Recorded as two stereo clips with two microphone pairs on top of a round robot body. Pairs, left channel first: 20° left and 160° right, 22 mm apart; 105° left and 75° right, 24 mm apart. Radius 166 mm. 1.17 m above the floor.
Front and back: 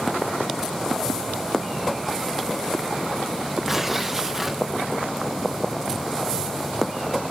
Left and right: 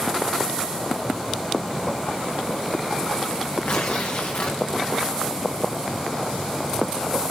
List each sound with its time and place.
3.6 s tearing paper: 130° left, 0.6 m